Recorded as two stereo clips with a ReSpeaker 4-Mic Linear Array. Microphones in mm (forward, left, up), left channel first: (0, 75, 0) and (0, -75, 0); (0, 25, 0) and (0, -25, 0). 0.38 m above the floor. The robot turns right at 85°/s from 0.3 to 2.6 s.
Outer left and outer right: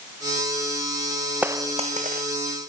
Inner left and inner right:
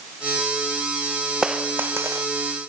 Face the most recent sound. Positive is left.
turn(degrees=-70)